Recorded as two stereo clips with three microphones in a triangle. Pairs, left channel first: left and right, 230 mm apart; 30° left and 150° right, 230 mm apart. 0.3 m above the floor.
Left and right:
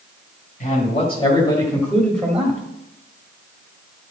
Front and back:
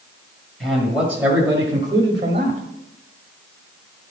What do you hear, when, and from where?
0.6 s a man speaking: 120° left, 1.8 m; by 2.6 s 170° right, 1.7 m